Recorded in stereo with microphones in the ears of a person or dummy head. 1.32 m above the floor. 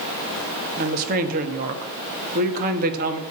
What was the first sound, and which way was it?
A woman speaking, 40° right (ahead or behind).